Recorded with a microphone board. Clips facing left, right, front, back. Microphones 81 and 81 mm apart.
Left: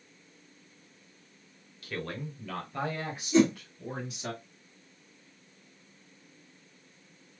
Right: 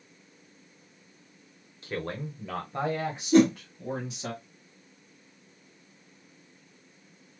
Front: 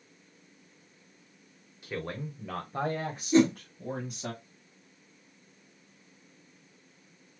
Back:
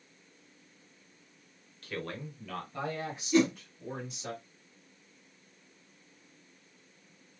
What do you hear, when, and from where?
1.8 s a man speaking: 65° right, 0.9 m; by 4.3 s 25° right, 2 m
3.3 s a whoosh: 60° right, 1.4 m